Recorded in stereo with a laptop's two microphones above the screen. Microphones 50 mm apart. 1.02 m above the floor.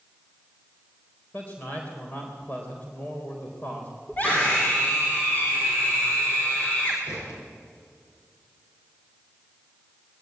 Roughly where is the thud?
Left.